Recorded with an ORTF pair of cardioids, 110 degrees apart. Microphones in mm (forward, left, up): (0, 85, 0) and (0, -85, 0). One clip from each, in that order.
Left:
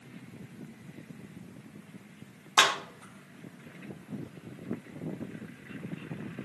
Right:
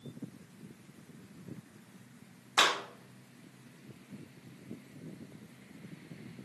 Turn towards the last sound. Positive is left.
turn(degrees=30)